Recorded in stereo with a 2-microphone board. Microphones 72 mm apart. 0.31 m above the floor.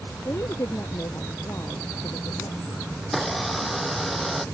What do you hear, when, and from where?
0.2 s a woman speaking: 40° left (ahead or behind); by 2.8 s 55° left (ahead or behind)
3.0 s a blender: centre (ahead or behind)